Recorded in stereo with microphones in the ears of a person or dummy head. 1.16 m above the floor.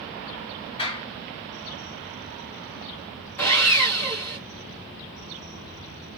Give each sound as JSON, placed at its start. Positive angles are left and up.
{"t": 0.8, "sound": "a clap", "side_deg": 25, "distance_m": 1.8}
{"t": 3.4, "sound": "sawing", "side_deg": 10, "distance_m": 2.5}